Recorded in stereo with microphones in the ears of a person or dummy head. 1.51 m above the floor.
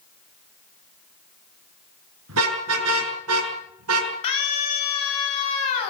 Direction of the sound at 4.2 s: 35° left (ahead or behind).